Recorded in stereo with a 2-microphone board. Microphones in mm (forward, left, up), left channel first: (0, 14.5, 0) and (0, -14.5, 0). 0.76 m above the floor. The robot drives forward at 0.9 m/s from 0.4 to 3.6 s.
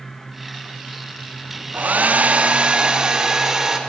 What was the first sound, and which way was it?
A hair dryer, 65° right (ahead or behind).